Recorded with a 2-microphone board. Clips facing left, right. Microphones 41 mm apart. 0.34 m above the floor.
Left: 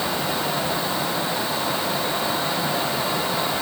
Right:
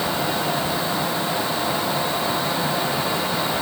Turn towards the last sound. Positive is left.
No sound to turn to.